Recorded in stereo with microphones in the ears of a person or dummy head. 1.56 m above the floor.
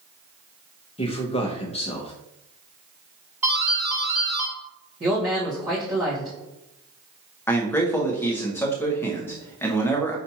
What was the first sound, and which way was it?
A man speaking, 40° left (ahead or behind).